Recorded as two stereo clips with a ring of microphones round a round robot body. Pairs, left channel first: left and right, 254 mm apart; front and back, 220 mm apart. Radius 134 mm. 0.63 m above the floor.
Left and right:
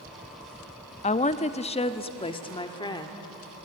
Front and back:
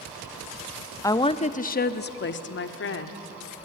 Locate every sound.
1.0 s a woman speaking: 65° left, 0.8 m; by 3.3 s 15° left, 2.0 m